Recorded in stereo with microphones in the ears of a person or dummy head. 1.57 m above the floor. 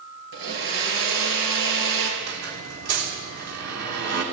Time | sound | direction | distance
0.3 | a blender | 70° right (ahead or behind) | 5 m
2.2 | a squeak | 65° right (ahead or behind) | 3 m